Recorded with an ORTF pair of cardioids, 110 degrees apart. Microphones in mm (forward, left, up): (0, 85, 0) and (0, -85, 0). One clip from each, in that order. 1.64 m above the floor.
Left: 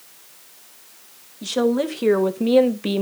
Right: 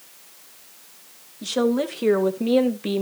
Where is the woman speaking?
Straight ahead, 2.5 m; by 3.0 s 20° left, 1.1 m.